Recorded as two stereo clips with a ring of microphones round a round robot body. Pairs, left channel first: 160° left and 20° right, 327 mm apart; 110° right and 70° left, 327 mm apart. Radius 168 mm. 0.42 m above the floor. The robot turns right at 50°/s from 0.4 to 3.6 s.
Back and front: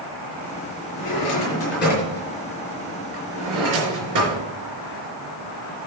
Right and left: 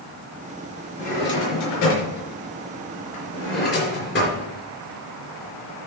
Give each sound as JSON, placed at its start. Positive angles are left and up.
{"t": 1.0, "sound": "a drawer", "azimuth_deg": 175, "distance_m": 4.0}